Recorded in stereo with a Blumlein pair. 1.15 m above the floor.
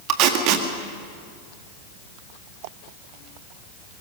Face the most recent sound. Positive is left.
turn(degrees=-40)